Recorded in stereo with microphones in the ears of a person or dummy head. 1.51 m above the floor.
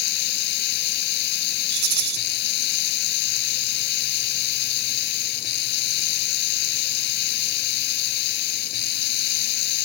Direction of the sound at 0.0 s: 55° left (ahead or behind).